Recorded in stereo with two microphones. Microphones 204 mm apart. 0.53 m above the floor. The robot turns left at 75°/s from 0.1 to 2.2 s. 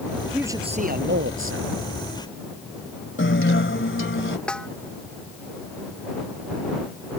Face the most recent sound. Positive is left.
turn(degrees=5)  # may be behind; listen again after turning